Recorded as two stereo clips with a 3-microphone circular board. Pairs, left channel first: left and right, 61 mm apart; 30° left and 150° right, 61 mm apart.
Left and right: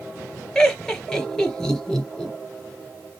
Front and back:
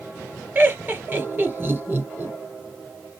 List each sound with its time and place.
0.6 s laughter: 165° left, 1.8 m